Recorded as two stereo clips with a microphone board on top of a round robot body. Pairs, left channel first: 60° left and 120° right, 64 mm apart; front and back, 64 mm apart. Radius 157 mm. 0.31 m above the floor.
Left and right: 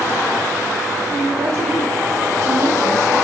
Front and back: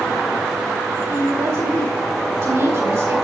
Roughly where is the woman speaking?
Behind.